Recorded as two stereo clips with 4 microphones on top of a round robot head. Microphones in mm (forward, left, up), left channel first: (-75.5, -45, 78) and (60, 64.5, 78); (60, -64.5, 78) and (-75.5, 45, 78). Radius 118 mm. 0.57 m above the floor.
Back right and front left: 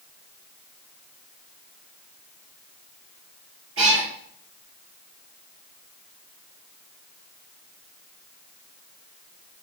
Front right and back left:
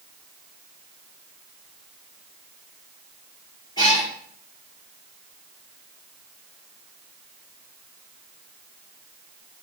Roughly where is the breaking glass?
No breaking glass in this recording.